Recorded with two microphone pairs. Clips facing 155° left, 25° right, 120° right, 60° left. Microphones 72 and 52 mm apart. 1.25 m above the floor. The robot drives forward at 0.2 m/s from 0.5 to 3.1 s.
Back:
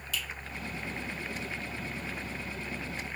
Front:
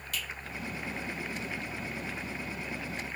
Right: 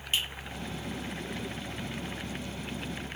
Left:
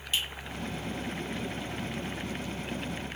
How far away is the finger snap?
About 1.1 m.